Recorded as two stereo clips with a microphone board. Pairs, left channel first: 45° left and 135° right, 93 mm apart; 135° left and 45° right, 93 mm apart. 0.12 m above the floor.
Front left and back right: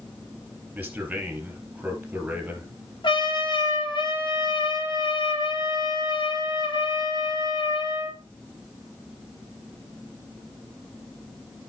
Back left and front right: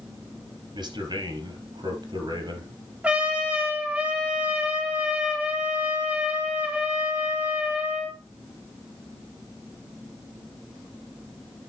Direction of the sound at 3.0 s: 30° left.